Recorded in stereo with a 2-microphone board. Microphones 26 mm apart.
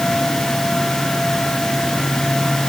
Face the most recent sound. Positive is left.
No sound to turn to.